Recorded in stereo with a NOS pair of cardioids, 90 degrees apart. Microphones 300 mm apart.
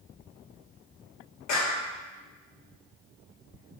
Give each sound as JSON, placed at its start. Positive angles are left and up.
{"t": 1.5, "sound": "a clap", "azimuth_deg": 65, "distance_m": 2.5}